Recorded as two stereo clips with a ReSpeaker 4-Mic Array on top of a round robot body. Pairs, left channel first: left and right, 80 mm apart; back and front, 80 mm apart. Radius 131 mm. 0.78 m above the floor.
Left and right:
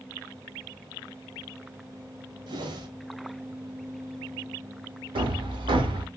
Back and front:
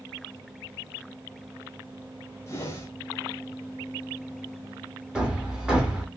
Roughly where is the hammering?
Right.